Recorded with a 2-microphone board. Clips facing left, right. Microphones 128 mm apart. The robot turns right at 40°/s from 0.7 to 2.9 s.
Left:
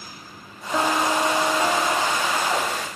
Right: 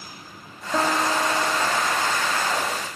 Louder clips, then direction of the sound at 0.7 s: Left 1 dB; 5° right.